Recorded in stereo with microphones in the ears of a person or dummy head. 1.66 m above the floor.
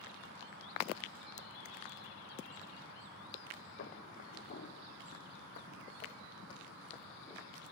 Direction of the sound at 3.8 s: 45° left (ahead or behind).